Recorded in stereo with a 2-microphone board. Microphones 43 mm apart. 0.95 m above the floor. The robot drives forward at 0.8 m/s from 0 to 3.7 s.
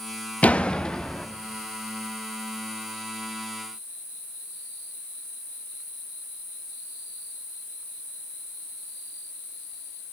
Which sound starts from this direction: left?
A door slam, at 0.4 s.